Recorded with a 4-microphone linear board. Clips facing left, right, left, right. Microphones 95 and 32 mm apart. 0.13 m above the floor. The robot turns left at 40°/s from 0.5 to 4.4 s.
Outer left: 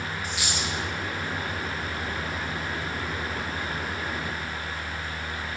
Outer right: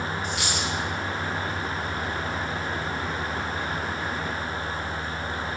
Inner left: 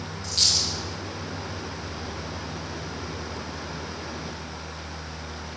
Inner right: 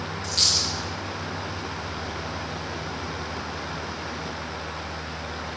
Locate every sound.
0.2 s a dropped coin: 5° left (ahead or behind), 6.5 m; by 0.7 s 5° right (ahead or behind), 6.5 m